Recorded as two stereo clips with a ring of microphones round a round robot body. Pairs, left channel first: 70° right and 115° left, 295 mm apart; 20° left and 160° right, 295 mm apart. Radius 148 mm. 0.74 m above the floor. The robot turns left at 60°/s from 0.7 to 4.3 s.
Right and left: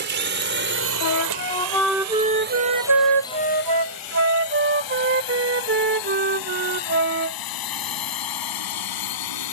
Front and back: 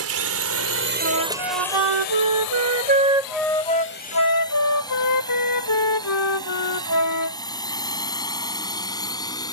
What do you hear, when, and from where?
0.0 s a drone: 165° left; by 9.5 s 55° right
1.0 s a flute: 105° right; by 7.4 s 55° left